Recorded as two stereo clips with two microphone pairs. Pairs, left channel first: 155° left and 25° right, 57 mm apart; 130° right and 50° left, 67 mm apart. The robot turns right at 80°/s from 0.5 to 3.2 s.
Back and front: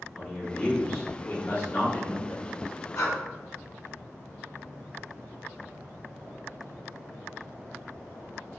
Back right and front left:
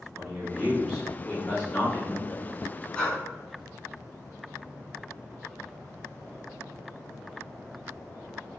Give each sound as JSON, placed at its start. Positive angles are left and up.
{"t": 0.1, "sound": "a man speaking", "azimuth_deg": 115, "distance_m": 1.1}
{"t": 3.0, "sound": "breathing", "azimuth_deg": 155, "distance_m": 1.5}